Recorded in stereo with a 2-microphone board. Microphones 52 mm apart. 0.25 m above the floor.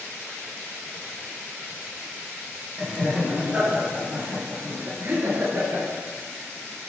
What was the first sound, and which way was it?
Laughter, centre (ahead or behind).